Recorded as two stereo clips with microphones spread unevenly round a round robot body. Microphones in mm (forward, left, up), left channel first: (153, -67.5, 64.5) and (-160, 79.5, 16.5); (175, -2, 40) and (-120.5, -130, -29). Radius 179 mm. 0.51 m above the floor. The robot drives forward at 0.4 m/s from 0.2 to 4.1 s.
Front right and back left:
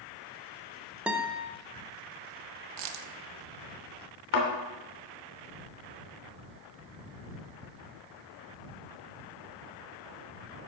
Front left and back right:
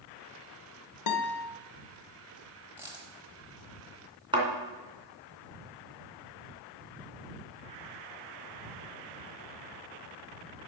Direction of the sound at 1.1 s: 70° left.